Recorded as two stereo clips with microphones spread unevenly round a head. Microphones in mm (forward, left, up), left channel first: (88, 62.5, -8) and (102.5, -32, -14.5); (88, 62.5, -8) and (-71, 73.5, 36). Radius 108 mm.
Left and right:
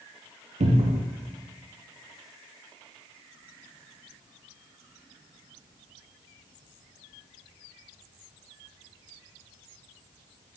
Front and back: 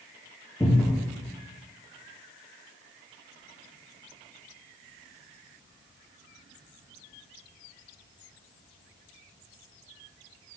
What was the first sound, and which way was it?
A cupboard door, 90° right.